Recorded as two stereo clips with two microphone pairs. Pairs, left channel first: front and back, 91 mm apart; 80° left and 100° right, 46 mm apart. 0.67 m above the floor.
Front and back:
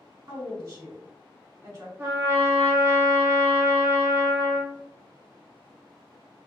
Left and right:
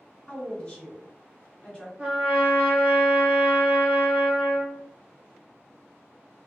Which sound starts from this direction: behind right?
A trumpet, at 2.0 s.